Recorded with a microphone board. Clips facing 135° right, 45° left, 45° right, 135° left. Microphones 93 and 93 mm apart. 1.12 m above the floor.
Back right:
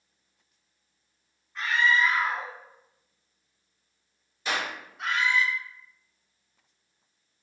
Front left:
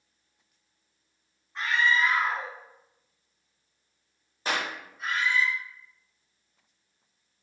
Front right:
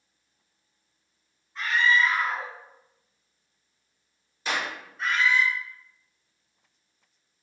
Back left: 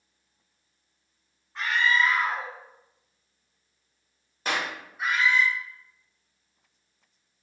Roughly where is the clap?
Left.